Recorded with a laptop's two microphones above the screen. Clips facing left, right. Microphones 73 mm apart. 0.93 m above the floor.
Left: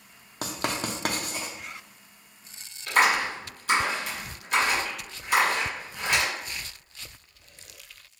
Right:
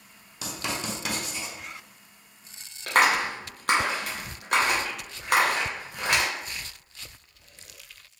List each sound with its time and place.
0.4 s writing: 45° left (ahead or behind), 0.6 m
2.9 s a clap: 60° right (ahead or behind), 1.1 m